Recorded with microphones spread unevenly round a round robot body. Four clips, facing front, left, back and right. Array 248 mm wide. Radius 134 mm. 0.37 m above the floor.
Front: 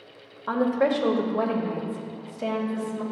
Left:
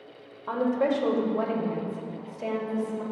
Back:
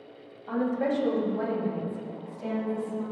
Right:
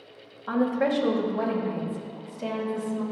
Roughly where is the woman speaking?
Ahead.